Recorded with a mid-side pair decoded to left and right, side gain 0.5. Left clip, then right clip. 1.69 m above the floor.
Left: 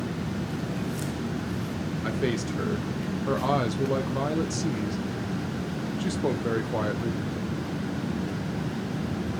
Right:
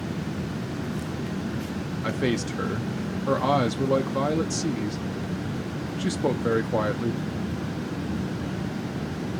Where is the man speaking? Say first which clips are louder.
Right 2 dB; 20° right, 0.6 m.